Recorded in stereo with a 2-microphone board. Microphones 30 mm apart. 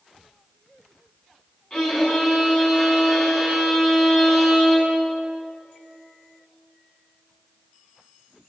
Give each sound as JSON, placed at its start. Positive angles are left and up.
{"t": 1.7, "sound": "a violin", "side_deg": 25, "distance_m": 7.0}